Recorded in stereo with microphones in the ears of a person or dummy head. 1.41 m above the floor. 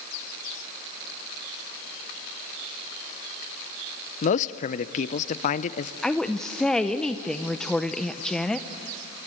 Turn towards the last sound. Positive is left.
turn(degrees=5)  # may be behind; listen again after turning